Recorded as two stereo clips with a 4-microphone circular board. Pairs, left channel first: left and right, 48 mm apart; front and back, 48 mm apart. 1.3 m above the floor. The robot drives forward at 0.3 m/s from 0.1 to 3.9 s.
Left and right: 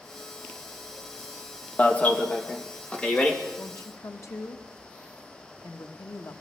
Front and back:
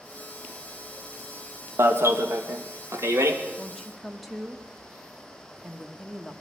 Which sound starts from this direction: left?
A woman speaking, at 3.6 s.